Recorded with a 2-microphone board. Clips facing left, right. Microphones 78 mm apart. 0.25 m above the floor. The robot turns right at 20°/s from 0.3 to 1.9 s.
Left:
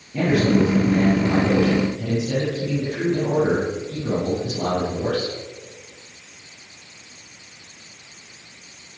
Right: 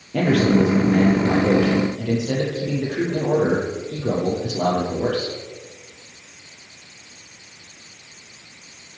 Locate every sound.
0.1 s a man speaking: 105° right, 7 m; by 5.3 s 70° right, 7 m